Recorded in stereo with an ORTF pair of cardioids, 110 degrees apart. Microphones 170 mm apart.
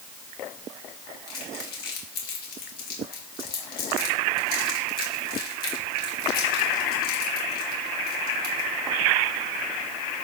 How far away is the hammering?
I don't hear hammering.